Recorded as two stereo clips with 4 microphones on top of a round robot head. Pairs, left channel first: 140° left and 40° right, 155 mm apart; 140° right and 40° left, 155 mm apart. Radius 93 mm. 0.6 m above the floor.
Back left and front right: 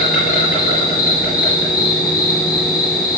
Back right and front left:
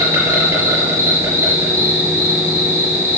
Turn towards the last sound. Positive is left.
turn(degrees=115)